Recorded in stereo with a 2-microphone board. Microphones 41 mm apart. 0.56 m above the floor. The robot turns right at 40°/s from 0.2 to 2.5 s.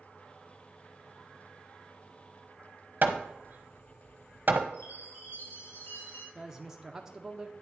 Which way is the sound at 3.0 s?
50° right (ahead or behind).